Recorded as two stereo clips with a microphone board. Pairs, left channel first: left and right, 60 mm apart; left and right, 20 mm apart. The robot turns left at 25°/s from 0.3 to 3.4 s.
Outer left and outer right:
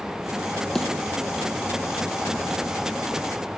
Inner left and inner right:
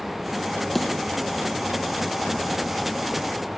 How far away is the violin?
No violin in this recording.